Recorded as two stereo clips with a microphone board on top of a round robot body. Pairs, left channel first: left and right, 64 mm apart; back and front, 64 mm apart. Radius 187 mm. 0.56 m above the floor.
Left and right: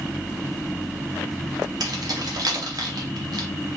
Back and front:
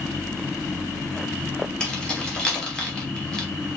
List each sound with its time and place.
1.8 s keys jangling: 105° right, 1.5 m